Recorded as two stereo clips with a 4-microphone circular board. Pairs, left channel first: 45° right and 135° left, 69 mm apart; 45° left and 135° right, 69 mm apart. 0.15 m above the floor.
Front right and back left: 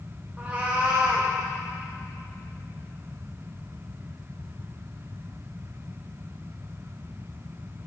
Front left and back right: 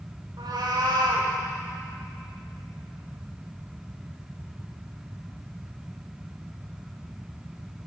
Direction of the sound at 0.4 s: 155° right.